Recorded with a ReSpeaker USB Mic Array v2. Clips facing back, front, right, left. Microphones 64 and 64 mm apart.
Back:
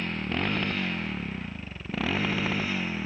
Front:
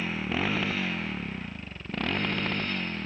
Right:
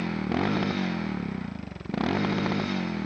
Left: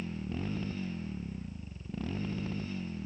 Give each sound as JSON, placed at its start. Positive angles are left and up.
{"t": 0.0, "sound": "a motorcycle", "azimuth_deg": -85}